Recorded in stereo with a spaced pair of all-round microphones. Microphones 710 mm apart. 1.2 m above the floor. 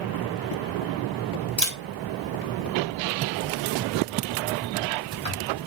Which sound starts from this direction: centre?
A camera shutter, at 1.6 s.